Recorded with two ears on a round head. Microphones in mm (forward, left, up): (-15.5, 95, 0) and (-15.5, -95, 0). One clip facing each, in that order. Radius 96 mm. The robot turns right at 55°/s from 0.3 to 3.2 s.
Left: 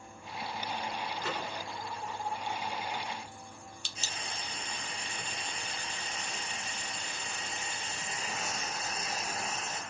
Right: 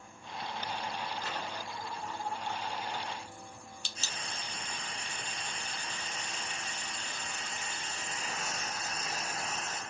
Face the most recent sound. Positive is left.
turn(degrees=10)  # may be behind; listen again after turning